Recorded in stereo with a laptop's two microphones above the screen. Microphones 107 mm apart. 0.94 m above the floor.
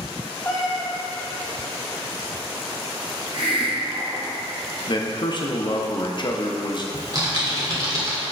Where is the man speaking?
45° left (ahead or behind), 0.8 m.